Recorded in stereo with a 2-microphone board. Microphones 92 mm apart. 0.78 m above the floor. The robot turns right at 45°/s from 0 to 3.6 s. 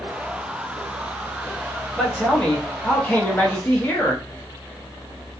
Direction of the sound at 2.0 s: 5° left (ahead or behind).